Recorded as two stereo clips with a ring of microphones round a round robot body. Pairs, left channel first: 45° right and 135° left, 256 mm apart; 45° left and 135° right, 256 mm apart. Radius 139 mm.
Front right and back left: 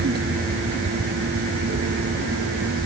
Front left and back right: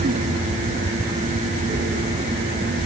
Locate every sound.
Only background noise.